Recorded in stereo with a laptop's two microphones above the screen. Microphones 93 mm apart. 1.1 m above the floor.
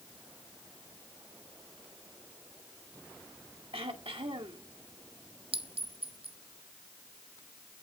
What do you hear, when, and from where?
3.7 s throat clearing: 80° right, 1.5 m
5.5 s a clink: 80° right, 0.8 m